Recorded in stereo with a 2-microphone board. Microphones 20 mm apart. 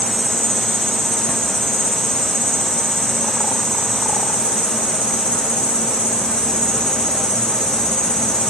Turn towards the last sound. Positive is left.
turn(degrees=40)  # may be behind; listen again after turning